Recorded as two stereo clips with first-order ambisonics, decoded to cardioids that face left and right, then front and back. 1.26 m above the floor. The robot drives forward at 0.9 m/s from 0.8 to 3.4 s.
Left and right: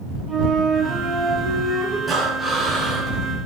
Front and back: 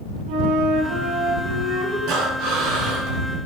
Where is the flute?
165° right, 1.8 m; by 2.0 s 170° right, 2.5 m.